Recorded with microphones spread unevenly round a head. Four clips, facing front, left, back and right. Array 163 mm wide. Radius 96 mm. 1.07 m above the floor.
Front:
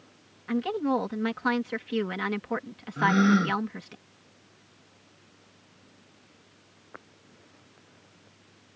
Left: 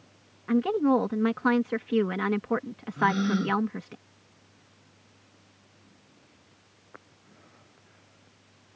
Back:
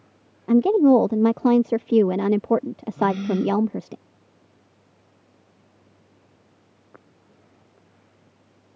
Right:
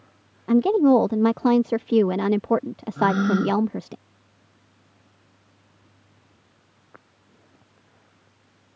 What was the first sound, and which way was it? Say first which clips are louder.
A woman speaking: right 7 dB, back 12 dB; 150° right.